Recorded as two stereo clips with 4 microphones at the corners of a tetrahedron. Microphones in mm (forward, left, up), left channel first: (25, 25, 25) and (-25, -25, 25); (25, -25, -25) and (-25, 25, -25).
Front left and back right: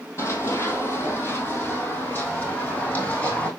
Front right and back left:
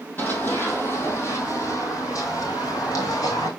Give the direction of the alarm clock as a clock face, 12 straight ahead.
No alarm clock in this recording.